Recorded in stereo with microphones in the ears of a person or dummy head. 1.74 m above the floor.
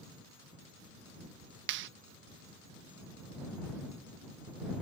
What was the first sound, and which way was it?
A clap, 75° right (ahead or behind).